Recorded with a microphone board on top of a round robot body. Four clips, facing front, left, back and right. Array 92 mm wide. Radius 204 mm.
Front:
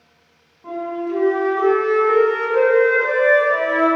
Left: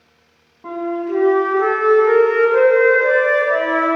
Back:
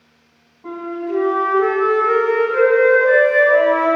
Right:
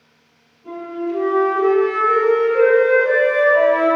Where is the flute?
105° left, 3.5 m.